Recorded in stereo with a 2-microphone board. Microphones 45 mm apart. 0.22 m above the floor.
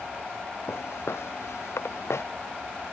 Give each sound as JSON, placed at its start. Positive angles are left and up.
{"t": 0.7, "sound": "footsteps", "side_deg": 80}